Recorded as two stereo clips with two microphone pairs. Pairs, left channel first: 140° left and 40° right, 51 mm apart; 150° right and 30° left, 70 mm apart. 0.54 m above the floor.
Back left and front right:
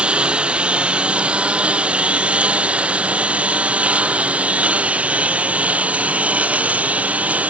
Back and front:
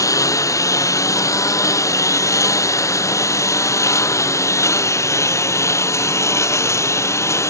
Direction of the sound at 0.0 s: 110° right.